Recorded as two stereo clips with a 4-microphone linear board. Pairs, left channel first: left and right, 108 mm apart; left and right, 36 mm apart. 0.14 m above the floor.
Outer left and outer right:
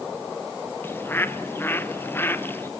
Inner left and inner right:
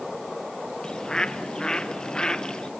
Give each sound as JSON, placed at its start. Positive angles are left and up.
{"t": 0.8, "sound": "a bird", "side_deg": 20, "distance_m": 0.8}